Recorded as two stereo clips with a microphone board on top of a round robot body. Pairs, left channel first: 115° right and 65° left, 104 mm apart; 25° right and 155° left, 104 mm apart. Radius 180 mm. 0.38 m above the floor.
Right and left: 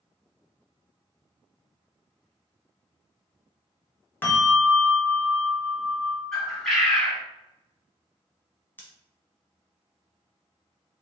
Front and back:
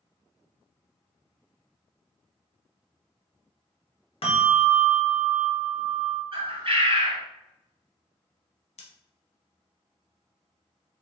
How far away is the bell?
About 1.5 m.